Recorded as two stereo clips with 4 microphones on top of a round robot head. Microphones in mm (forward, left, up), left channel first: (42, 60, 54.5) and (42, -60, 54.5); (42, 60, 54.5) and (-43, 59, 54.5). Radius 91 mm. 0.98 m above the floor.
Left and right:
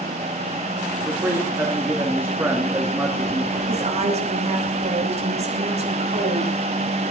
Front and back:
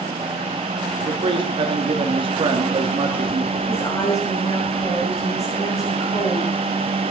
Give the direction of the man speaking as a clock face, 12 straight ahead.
5 o'clock.